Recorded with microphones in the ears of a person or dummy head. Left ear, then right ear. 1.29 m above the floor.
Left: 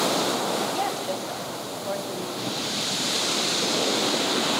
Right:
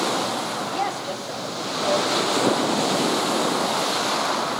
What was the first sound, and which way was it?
A woman speaking, centre (ahead or behind).